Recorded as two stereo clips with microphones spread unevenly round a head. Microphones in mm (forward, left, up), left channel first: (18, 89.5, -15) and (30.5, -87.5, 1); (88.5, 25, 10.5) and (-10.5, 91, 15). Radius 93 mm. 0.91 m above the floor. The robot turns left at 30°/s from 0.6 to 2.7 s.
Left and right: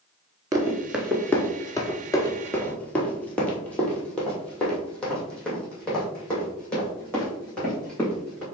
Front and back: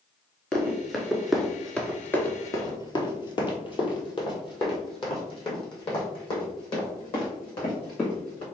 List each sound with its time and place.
0.5 s running footsteps: 115° right, 0.9 m; by 8.4 s 10° left, 4.5 m